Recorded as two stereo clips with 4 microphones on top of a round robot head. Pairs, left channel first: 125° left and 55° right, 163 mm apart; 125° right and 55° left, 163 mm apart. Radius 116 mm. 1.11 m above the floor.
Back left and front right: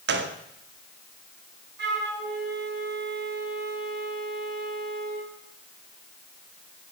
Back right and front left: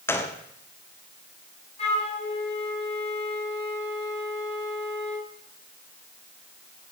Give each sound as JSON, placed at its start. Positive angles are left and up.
{"t": 0.1, "sound": "a gunshot", "azimuth_deg": -50, "distance_m": 1.8}
{"t": 1.8, "sound": "a flute", "azimuth_deg": -70, "distance_m": 5.5}